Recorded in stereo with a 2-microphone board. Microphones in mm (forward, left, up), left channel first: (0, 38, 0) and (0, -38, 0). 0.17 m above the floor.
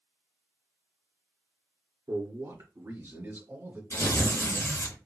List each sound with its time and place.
2.1 s a man speaking: 45° right (ahead or behind), 2.0 m; by 3.8 s 30° right (ahead or behind), 1.6 m
3.9 s tearing paper: 50° left (ahead or behind), 2.5 m